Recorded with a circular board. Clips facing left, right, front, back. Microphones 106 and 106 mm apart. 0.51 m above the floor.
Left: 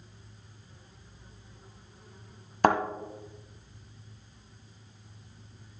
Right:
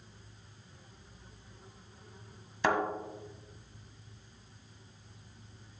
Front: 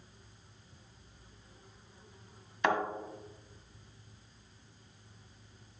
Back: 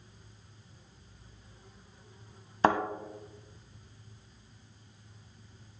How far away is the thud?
About 1.4 m.